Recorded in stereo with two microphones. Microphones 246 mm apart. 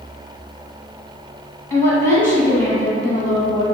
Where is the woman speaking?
10° left (ahead or behind), 1.0 m.